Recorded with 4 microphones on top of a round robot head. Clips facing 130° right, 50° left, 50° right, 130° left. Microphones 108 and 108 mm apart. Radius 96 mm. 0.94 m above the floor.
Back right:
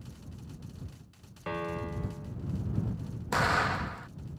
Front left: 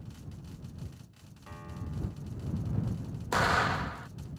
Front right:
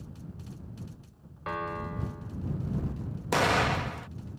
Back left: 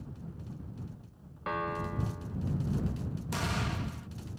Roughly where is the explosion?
Ahead right.